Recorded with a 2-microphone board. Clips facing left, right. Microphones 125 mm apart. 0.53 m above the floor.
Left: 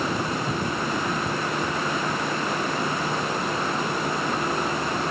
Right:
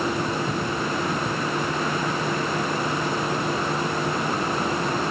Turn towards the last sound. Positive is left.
No sound to turn to.